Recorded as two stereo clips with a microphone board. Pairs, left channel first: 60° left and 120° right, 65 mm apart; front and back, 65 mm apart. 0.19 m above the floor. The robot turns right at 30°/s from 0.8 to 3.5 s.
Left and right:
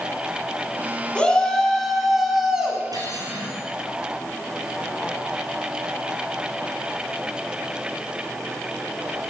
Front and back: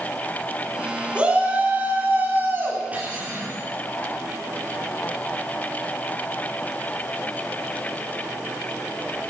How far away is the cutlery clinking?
About 2.5 m.